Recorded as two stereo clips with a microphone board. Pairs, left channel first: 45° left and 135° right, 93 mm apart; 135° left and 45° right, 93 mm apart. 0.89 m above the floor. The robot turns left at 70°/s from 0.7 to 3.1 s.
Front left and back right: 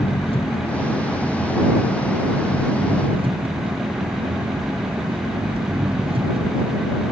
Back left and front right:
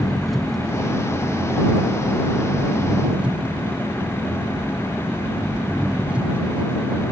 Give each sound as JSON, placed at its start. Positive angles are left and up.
{"t": 0.0, "sound": "an engine running", "azimuth_deg": 45}